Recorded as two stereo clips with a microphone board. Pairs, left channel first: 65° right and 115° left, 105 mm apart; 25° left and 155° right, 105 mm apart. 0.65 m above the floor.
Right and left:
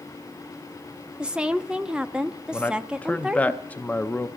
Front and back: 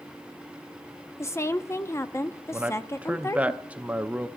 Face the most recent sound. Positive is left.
turn(degrees=-110)